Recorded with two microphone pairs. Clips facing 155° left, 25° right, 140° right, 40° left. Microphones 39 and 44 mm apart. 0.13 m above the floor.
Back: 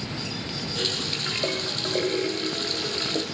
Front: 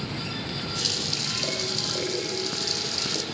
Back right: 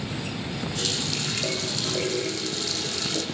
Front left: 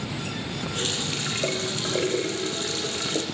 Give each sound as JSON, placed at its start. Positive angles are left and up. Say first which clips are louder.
{"t": 0.8, "sound": "a running tap", "louder": "back 3 dB, front left 1 dB", "azimuth_deg": 100, "distance_m": 4.5}